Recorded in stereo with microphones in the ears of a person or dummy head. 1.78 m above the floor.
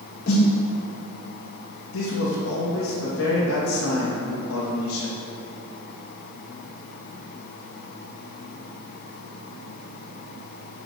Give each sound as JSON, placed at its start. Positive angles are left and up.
{"t": 0.3, "sound": "a snare drum", "side_deg": 55, "distance_m": 3.0}
{"t": 1.9, "sound": "a man speaking", "side_deg": 65, "distance_m": 3.5}